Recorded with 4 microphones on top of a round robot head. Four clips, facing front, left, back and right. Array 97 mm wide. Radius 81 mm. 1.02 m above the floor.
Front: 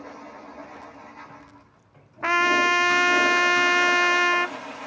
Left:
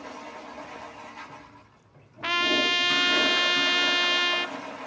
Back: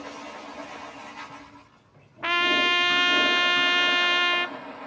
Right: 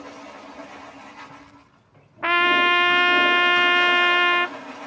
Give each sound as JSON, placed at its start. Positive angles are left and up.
{"t": 2.2, "sound": "a trumpet", "azimuth_deg": -60, "distance_m": 0.6}